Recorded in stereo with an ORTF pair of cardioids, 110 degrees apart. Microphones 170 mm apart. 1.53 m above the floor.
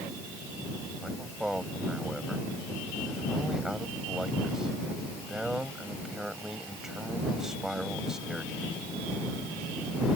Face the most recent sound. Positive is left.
turn(degrees=-5)